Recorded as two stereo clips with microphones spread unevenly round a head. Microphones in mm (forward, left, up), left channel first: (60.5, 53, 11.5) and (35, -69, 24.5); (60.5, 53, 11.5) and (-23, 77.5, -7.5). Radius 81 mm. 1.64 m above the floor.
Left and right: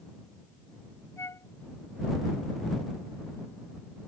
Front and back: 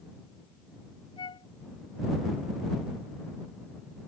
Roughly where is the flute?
Ahead.